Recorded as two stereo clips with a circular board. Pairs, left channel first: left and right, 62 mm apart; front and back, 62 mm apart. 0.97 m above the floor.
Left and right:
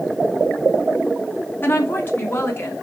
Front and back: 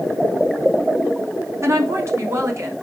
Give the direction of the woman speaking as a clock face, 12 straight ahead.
7 o'clock.